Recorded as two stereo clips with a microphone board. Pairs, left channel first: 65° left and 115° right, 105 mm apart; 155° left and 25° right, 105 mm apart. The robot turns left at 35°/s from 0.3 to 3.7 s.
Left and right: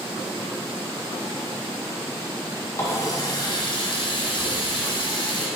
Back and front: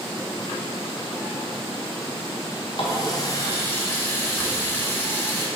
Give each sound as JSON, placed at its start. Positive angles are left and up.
{"t": 2.8, "sound": "a running tap", "azimuth_deg": 125, "distance_m": 1.3}